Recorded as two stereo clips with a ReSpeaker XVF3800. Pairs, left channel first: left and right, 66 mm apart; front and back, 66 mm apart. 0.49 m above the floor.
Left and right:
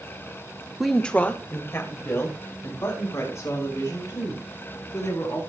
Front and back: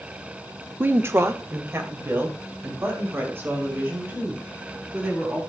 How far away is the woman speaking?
About 0.8 m.